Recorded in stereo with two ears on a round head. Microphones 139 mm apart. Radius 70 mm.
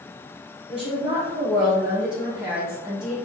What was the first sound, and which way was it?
A woman speaking, 5° right (ahead or behind).